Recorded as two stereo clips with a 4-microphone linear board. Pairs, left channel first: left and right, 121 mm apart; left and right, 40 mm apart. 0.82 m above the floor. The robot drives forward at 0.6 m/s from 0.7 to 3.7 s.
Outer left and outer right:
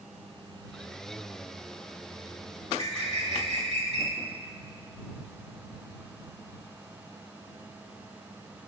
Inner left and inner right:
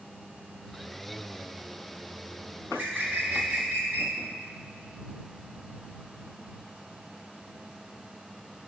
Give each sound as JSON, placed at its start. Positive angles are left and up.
{"t": 2.6, "sound": "a bird", "side_deg": -55, "distance_m": 1.9}